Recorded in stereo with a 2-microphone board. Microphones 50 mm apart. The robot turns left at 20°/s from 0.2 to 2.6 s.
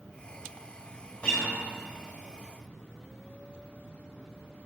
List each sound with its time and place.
1.2 s a guitar: 20° left (ahead or behind), 1.6 m; by 1.6 s 15° left (ahead or behind), 1.6 m